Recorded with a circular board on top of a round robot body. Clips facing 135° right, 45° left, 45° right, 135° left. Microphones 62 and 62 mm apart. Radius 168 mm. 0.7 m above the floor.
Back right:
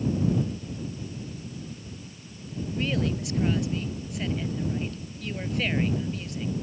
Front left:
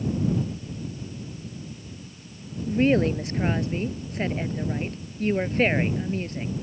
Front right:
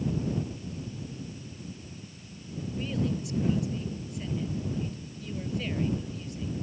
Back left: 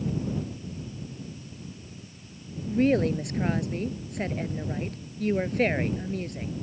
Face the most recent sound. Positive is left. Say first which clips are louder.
# front left 8 dB, back left 9 dB
turn(degrees=100)